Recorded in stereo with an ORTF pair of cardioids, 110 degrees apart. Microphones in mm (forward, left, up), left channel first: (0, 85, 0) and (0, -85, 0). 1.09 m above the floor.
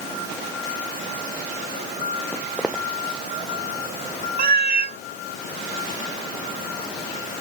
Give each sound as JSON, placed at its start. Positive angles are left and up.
{"t": 2.3, "sound": "footsteps", "azimuth_deg": -5}
{"t": 4.4, "sound": "a cat meowing", "azimuth_deg": -65}